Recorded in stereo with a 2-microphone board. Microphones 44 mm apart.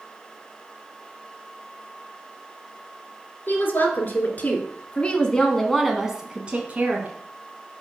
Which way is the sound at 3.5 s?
55° left (ahead or behind).